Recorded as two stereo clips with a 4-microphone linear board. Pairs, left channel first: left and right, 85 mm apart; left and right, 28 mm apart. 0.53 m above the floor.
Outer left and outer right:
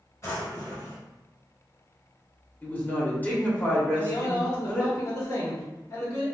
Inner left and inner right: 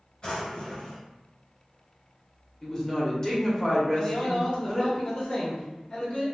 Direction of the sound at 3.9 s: 45° left (ahead or behind).